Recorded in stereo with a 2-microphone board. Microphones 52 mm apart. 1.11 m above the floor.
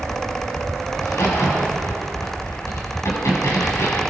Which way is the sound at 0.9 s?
75° left (ahead or behind).